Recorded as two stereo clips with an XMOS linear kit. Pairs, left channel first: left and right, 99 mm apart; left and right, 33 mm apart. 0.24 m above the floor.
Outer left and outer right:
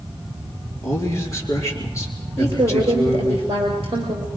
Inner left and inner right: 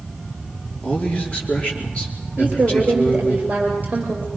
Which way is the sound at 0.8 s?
30° left (ahead or behind).